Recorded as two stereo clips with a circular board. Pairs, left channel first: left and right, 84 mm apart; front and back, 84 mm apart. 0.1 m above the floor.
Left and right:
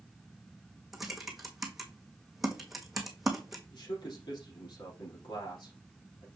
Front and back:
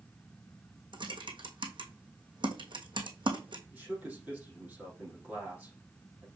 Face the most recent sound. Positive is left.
turn(degrees=110)